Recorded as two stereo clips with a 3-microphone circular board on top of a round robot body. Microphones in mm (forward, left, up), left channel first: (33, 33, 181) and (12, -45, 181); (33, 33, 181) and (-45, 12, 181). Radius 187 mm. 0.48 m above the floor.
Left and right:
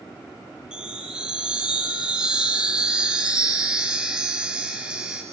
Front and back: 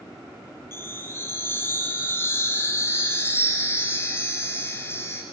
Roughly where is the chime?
Ahead right.